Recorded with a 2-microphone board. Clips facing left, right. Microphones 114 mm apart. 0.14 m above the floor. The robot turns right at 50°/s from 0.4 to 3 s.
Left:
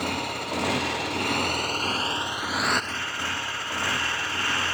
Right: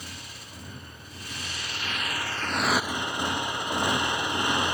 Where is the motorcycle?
65° left; by 4.8 s 165° right.